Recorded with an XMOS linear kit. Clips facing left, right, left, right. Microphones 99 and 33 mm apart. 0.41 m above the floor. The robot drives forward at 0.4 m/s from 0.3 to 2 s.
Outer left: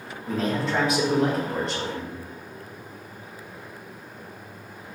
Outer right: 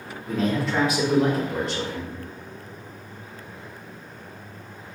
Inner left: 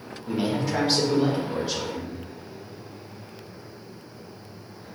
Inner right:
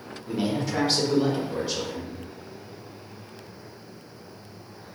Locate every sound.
0.3 s a man speaking: centre (ahead or behind), 0.8 m